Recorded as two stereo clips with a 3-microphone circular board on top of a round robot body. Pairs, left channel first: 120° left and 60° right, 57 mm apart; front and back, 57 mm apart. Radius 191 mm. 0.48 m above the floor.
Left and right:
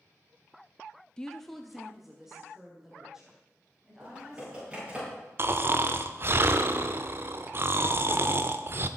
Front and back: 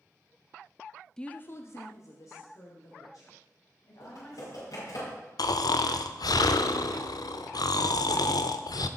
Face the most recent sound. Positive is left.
turn(degrees=-10)